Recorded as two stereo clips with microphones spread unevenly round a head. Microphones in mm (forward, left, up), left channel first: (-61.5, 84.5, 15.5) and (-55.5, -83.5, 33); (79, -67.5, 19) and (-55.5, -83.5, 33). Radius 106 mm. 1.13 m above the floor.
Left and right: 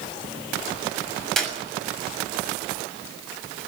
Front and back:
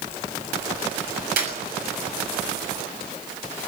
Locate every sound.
1.4 s a clap: straight behind, 7 m